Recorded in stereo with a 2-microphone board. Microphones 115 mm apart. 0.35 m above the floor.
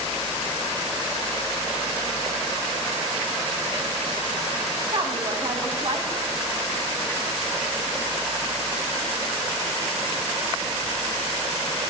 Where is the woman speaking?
45° right (ahead or behind), 2 m.